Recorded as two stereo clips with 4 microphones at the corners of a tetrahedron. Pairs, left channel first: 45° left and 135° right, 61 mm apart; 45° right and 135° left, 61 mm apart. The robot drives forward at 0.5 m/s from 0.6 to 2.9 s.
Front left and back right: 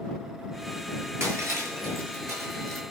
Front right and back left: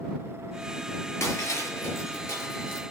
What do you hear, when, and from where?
1.2 s breaking glass: 90° right, 5.5 m; by 2.8 s 95° right, 6 m